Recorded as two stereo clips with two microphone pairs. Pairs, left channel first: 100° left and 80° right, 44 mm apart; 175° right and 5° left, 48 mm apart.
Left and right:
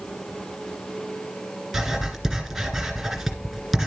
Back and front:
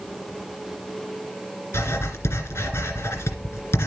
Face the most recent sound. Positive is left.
turn(degrees=-165)